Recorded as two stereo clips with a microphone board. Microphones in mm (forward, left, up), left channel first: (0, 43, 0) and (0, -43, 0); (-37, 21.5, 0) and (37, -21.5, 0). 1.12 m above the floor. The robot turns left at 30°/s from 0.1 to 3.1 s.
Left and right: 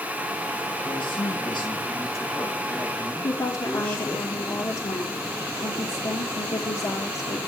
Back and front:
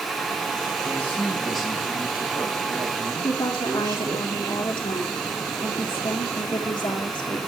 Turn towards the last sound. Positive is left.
turn(degrees=120)